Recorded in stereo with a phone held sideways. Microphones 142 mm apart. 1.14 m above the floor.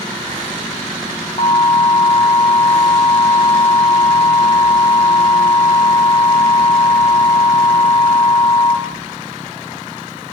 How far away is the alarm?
About 5 m.